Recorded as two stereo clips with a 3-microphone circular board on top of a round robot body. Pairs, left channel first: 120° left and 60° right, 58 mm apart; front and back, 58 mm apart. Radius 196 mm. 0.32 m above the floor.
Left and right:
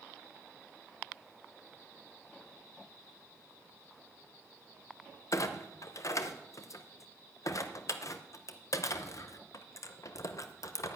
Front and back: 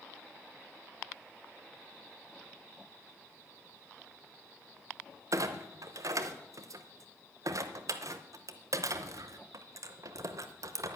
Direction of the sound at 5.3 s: 155° left.